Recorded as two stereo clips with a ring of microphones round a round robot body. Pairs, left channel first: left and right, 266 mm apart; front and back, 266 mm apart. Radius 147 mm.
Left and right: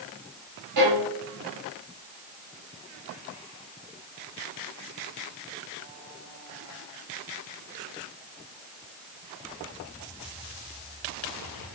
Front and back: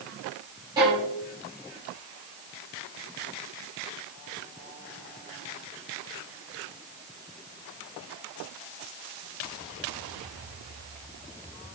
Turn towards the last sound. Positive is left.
turn(degrees=-105)